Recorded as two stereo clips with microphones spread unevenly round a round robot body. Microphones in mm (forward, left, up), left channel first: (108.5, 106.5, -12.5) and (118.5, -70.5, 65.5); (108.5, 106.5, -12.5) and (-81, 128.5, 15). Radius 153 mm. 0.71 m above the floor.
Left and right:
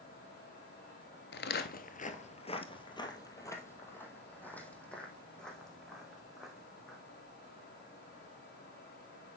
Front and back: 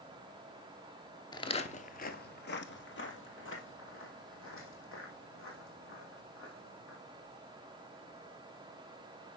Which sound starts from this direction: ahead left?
Footsteps, at 1.3 s.